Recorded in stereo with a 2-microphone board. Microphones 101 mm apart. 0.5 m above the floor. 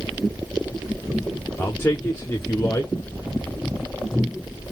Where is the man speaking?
25° left (ahead or behind), 0.9 m.